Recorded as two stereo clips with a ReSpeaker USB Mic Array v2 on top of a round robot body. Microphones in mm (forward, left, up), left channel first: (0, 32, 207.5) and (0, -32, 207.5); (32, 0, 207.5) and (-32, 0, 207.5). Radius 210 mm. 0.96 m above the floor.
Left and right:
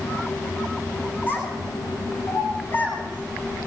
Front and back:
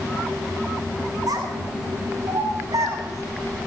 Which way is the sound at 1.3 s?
150° left.